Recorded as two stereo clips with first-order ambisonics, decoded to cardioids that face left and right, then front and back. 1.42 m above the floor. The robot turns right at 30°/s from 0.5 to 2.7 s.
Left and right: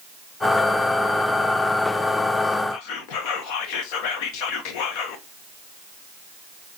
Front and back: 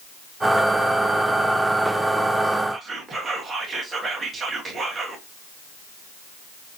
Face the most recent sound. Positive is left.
turn(degrees=105)